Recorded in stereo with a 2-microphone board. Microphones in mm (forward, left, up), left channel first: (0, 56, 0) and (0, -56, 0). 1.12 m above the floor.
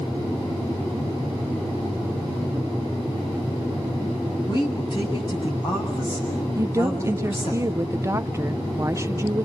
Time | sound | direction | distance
4.5 | a woman speaking | 45° left (ahead or behind) | 8 m
6.6 | a woman speaking | 25° right (ahead or behind) | 0.7 m